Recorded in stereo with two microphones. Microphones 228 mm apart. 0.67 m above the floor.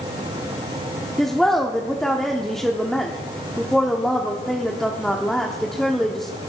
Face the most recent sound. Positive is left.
turn(degrees=0)  # may be behind; listen again after turning